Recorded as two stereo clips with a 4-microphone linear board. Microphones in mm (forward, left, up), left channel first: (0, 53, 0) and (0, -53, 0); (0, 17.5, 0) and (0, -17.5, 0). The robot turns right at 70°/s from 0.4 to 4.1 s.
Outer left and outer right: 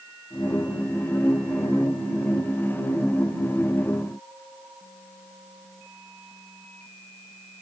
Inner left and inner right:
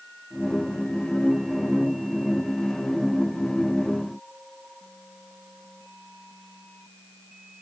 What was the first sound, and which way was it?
Only background noise.